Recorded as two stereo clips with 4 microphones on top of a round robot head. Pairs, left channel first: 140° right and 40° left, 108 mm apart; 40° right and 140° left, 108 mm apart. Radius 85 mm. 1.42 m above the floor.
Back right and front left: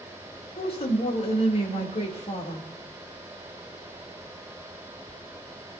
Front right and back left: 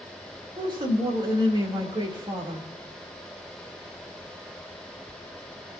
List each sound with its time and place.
0.6 s a woman speaking: 170° right, 3 m